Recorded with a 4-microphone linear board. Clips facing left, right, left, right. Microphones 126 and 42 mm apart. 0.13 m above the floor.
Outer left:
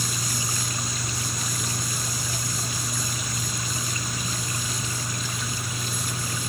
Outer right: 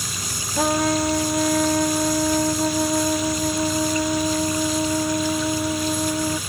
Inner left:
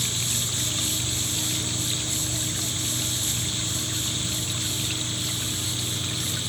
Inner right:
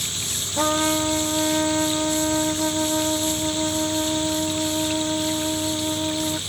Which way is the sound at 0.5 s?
70° right (ahead or behind).